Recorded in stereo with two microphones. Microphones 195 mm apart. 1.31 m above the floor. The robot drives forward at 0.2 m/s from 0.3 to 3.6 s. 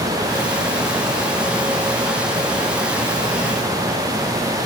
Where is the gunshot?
No gunshot in this recording.